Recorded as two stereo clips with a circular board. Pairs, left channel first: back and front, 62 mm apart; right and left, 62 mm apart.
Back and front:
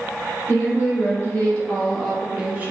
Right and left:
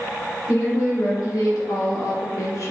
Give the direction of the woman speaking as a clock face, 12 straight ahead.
4 o'clock.